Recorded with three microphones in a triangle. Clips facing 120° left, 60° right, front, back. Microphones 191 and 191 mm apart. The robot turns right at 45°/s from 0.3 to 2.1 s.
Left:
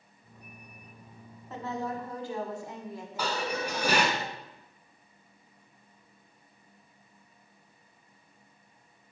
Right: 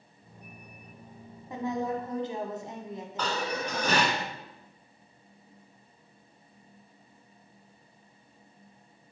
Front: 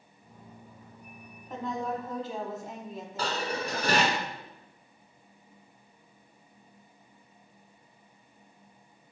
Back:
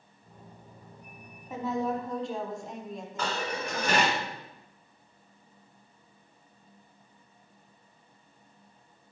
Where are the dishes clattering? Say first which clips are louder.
Even, front 1 dB; 40° left, 1.5 m.